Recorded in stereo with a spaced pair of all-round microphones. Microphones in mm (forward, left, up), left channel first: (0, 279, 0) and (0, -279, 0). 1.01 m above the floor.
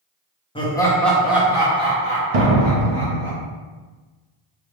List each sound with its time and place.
0.6 s laughter: 10° left (ahead or behind), 0.8 m; by 3.3 s 20° right (ahead or behind), 1.4 m
2.3 s a door slam: 80° right, 0.7 m